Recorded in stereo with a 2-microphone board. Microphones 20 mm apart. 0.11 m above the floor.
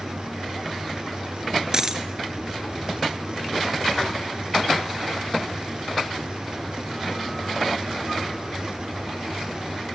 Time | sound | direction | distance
1.7 | a dropped coin | 25° right (ahead or behind) | 0.8 m